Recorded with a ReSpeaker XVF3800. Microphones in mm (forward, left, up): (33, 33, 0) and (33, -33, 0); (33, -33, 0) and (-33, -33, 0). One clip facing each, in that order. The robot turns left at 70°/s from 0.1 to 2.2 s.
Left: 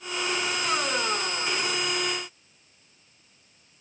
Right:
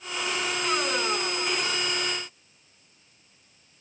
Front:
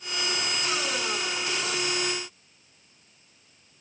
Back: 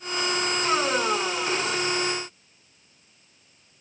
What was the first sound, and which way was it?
Only background noise.